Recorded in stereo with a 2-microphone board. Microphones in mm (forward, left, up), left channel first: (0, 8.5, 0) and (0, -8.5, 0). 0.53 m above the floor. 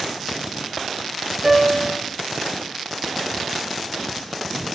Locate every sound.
1.4 s a piano: 15° right (ahead or behind), 1.2 m